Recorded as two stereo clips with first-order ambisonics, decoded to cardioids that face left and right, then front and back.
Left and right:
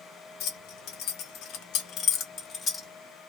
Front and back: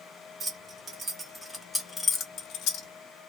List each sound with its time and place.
0.4 s keys jangling: 120° left, 1.1 m; by 2.9 s 15° left, 0.7 m